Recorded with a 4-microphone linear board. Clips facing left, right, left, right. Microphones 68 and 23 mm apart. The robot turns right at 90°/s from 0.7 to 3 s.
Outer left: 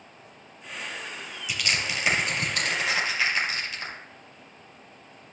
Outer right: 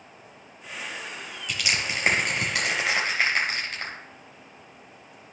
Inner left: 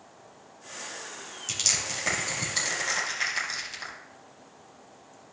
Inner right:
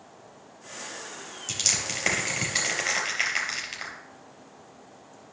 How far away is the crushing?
About 3.5 m.